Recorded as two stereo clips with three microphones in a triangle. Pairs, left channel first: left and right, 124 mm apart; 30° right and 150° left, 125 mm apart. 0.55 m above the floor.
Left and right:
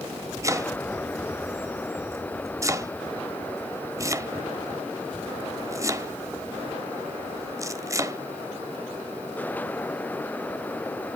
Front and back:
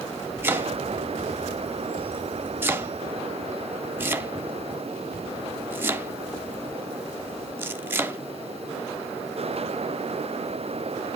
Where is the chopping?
140° right, 0.6 m.